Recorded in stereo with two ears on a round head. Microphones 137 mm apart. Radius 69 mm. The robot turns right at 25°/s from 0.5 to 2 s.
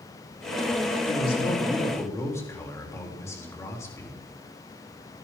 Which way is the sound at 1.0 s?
45° left (ahead or behind).